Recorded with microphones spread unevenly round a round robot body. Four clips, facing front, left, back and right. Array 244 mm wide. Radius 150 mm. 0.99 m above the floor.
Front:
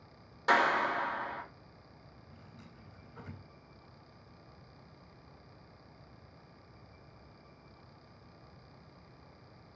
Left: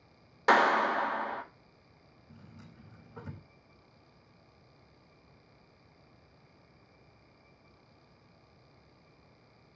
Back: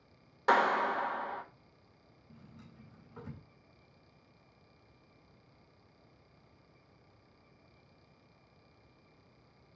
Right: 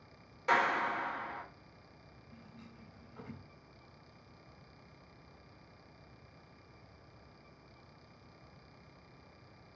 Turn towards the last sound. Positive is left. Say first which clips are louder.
# left 1 dB, back 2 dB
turn(degrees=125)